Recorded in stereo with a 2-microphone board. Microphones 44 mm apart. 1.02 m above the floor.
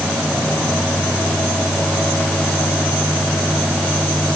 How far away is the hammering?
No hammering in this recording.